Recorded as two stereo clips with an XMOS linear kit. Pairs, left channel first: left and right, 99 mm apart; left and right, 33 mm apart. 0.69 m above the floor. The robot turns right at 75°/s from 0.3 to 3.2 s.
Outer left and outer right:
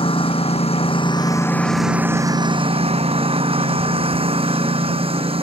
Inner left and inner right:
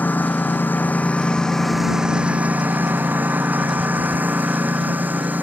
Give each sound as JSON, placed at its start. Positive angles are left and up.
{"t": 0.0, "sound": "a lawn mower", "azimuth_deg": 70}